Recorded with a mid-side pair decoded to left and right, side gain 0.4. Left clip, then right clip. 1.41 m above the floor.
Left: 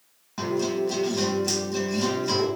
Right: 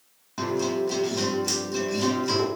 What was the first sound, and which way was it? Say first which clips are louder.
A guitar: even; straight ahead.